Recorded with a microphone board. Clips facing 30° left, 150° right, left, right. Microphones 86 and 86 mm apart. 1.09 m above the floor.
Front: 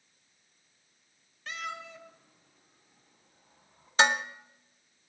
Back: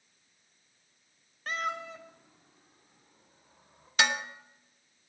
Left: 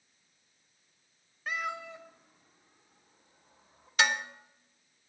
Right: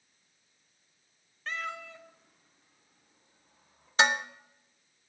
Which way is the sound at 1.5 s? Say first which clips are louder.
Back 5 dB, left 2 dB; 170° left.